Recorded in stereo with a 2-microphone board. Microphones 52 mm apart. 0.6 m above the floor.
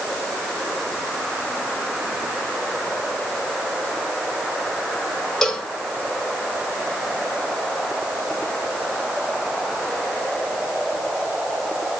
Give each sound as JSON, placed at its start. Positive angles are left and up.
{"t": 5.4, "sound": "a cowbell", "side_deg": 10, "distance_m": 3.0}